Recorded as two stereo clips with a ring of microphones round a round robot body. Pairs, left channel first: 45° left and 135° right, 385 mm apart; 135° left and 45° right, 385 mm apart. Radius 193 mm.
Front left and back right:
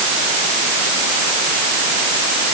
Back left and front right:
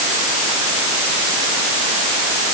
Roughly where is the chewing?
No chewing in this recording.